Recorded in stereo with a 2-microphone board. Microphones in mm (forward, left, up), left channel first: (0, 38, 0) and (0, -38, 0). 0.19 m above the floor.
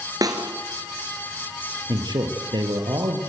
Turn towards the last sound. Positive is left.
turn(degrees=-70)  # may be behind; listen again after turning